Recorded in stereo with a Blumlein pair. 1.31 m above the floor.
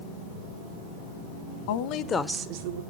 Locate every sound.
1.7 s a woman speaking: 50° left, 1.1 m; by 2.8 s 70° right, 0.8 m